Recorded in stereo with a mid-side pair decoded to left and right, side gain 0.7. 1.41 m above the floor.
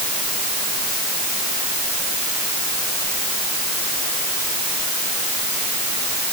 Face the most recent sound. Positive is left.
No sound to turn to.